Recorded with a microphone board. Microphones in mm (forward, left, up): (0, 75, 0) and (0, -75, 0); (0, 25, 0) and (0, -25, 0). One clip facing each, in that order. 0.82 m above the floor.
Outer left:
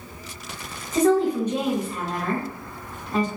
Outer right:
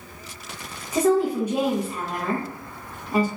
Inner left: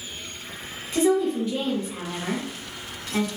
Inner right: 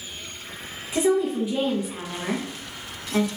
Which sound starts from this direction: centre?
A woman speaking, at 0.9 s.